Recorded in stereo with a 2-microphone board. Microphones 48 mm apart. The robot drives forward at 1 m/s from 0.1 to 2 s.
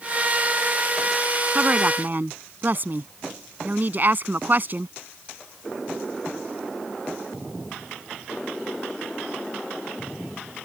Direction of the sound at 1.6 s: 35° right (ahead or behind).